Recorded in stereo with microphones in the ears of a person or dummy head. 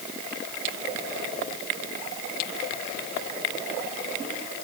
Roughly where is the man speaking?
I don't hear a man speaking.